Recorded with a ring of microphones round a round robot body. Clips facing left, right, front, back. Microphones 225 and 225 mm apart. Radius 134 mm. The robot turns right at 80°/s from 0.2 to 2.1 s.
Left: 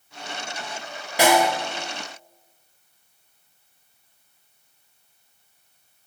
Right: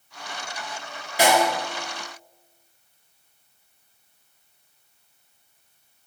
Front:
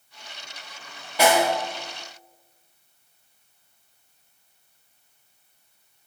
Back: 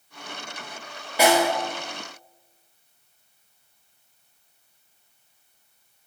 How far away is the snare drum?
About 0.7 m.